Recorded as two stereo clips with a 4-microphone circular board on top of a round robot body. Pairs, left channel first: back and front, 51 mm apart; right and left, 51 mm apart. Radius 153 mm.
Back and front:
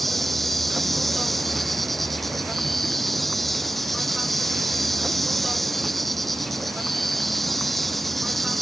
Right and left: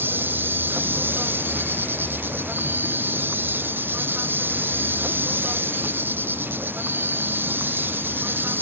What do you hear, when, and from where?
0.0 s an insect: 95° left